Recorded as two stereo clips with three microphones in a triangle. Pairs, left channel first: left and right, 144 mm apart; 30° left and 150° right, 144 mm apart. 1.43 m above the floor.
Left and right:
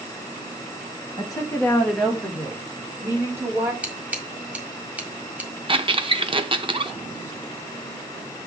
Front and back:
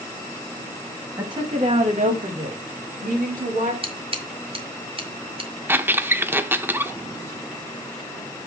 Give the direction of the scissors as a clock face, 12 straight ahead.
6 o'clock.